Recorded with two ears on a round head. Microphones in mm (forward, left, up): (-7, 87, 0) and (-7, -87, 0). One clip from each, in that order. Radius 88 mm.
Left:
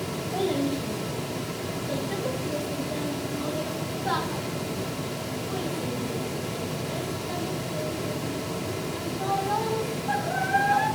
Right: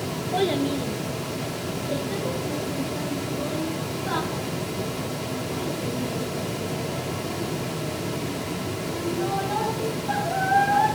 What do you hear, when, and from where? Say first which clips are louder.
0.3 s a child speaking: right 3 dB; 40° right (ahead or behind), 1.2 m; by 10.8 s 55° left (ahead or behind), 9.5 m